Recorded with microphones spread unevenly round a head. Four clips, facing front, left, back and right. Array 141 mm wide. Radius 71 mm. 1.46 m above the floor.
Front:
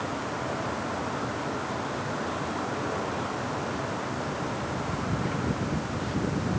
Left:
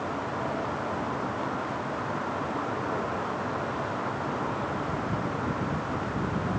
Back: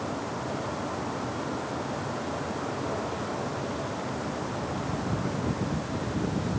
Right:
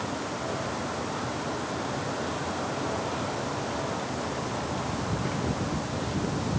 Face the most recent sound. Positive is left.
No sound to turn to.